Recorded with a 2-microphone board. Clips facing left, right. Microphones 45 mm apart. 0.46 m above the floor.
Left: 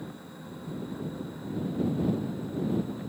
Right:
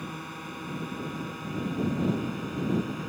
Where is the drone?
70° right (ahead or behind).